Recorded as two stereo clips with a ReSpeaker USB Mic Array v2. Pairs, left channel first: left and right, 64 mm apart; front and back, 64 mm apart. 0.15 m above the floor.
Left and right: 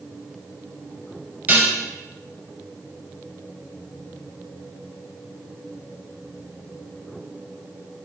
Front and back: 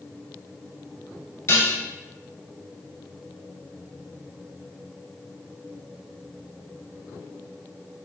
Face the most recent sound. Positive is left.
turn(degrees=-40)